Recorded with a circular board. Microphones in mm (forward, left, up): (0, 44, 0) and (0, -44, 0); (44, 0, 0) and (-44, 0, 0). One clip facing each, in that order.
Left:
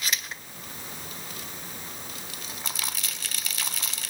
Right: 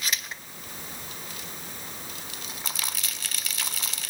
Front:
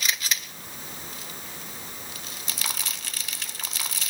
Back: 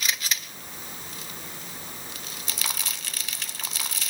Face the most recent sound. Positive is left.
No sound to turn to.